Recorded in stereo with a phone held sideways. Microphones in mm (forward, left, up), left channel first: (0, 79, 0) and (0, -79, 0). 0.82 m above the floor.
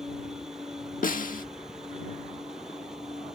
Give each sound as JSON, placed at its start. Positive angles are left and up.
{"t": 0.0, "sound": "a machine running", "side_deg": -5}
{"t": 1.0, "sound": "a snare drum", "side_deg": 60}